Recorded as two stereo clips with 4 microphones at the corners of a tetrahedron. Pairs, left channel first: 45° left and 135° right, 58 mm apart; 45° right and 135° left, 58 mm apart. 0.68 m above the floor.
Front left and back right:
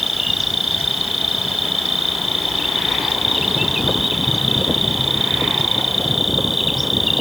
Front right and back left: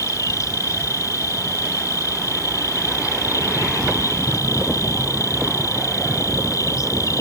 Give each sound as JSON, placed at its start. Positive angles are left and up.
{"t": 0.0, "sound": "an insect", "azimuth_deg": -50}